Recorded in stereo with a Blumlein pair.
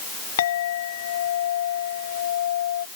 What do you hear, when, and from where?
0.4 s a clink: 60° left